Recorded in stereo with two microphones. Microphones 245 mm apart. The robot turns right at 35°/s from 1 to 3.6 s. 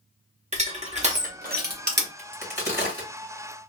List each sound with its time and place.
0.5 s crushing: 25° right (ahead or behind), 1.0 m; by 2.1 s 45° right (ahead or behind), 1.0 m
2.2 s a crack: 55° right (ahead or behind), 2 m; by 3.1 s 30° right (ahead or behind), 2 m